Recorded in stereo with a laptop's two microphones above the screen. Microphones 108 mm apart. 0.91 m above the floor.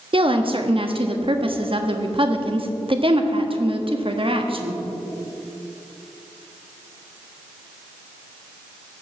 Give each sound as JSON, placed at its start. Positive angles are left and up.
{"t": 0.1, "sound": "a woman speaking", "side_deg": -55, "distance_m": 1.2}